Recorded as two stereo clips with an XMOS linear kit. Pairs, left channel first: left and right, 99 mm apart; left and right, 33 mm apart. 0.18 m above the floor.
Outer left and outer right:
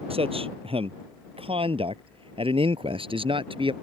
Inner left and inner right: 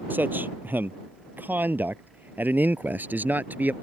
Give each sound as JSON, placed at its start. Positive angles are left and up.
{"t": 0.1, "sound": "a man speaking", "side_deg": -75}